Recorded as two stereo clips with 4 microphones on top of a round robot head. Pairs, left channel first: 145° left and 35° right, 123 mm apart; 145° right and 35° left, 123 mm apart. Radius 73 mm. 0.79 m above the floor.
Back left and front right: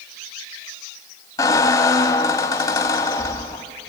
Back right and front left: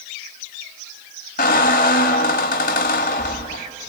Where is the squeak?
155° right, 0.9 m.